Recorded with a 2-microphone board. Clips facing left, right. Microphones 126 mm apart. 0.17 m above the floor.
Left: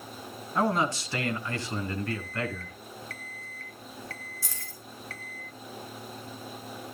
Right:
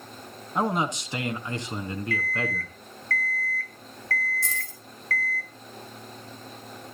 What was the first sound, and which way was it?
A man speaking, 20° right (ahead or behind).